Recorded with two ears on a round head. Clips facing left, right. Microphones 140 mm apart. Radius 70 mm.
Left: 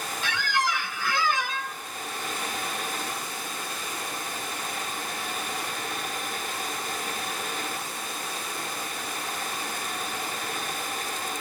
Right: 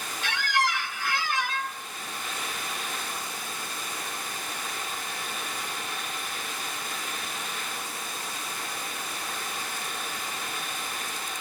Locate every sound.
0.2 s a squeak: 75° left (ahead or behind), 0.7 m